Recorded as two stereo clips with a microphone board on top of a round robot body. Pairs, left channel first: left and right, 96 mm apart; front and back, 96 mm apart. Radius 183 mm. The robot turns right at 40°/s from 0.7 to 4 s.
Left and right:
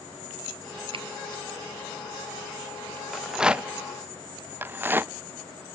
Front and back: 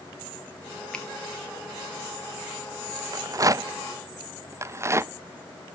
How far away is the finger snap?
About 1.1 m.